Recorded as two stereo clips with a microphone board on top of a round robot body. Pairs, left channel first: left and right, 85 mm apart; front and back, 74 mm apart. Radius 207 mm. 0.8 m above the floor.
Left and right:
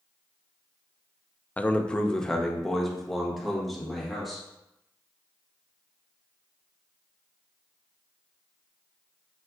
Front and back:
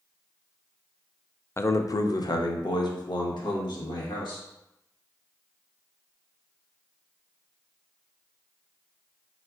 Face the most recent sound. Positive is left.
turn(degrees=0)